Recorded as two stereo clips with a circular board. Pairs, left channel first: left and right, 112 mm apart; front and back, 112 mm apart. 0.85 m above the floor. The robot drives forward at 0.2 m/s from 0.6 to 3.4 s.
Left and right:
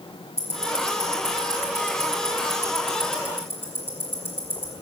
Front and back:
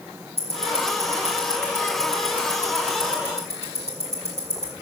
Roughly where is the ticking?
Behind left.